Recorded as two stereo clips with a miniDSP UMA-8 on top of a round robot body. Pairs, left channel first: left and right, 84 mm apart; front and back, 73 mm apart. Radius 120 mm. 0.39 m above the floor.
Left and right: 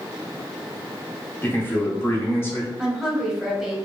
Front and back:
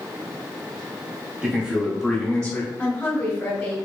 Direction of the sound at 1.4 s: 125° left.